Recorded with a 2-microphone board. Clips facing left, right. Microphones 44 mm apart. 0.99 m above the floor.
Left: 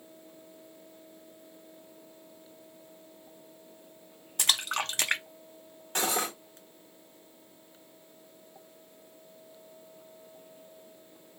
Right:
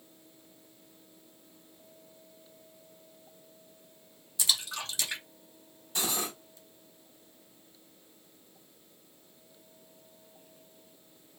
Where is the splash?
55° left (ahead or behind), 0.6 m.